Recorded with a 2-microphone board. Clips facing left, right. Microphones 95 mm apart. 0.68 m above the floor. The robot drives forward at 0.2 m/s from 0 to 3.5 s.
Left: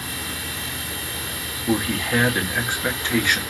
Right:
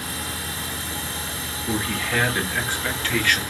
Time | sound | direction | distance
1.7 | a man speaking | 20° left (ahead or behind) | 1.0 m